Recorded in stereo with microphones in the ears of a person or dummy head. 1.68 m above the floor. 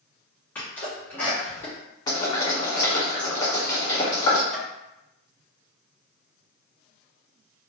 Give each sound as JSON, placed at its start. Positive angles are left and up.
{"t": 0.6, "sound": "a sneeze", "side_deg": 15, "distance_m": 1.4}
{"t": 2.1, "sound": "boiling", "side_deg": 20, "distance_m": 1.1}
{"t": 4.5, "sound": "tapping", "side_deg": 0, "distance_m": 1.1}